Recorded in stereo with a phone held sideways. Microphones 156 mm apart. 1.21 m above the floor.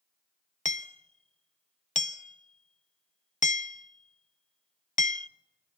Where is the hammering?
50° left (ahead or behind), 0.6 m.